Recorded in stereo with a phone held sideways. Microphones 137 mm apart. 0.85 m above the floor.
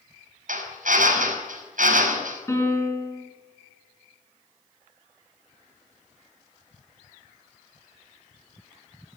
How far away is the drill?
About 5.5 m.